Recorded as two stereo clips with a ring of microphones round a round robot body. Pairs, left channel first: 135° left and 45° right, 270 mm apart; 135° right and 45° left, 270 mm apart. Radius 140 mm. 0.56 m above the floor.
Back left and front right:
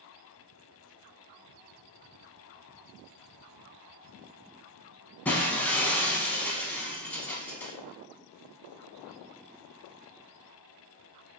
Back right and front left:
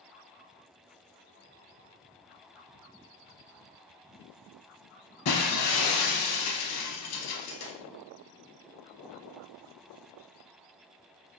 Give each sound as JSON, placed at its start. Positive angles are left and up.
{"t": 5.2, "sound": "breaking glass", "azimuth_deg": -140, "distance_m": 0.5}